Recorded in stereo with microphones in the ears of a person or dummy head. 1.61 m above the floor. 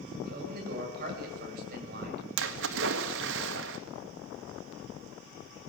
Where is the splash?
65° right (ahead or behind), 1.8 m.